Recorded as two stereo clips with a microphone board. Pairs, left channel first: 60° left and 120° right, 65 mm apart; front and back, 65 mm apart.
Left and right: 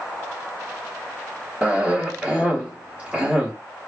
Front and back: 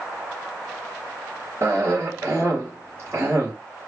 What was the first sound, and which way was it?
A cough, 170° left.